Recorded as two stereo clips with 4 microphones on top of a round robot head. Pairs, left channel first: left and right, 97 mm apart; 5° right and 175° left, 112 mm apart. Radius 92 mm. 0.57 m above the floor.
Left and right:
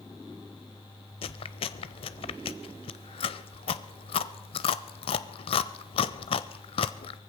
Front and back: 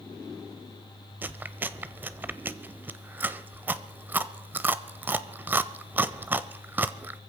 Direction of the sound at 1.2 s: 105° left.